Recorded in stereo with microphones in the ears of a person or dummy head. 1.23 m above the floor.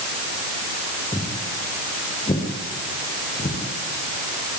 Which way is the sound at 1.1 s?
10° left (ahead or behind).